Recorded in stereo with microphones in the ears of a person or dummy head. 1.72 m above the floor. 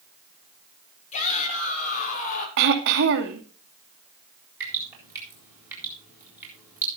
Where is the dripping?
15° right (ahead or behind), 7 m.